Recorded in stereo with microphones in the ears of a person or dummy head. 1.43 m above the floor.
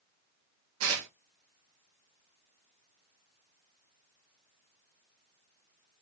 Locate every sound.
0.8 s tearing paper: 80° right, 1.0 m